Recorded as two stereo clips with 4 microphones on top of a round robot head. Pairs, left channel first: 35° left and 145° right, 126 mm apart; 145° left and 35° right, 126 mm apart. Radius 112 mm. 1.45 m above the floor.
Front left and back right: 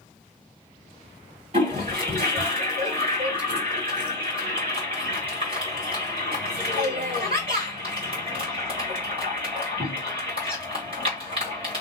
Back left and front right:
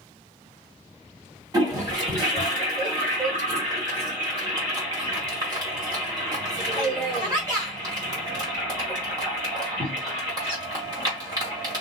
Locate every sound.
1.5 s a toilet flushing: 95° right, 1.9 m